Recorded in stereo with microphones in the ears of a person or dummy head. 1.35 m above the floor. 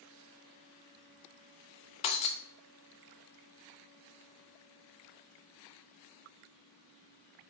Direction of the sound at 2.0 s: 40° left (ahead or behind).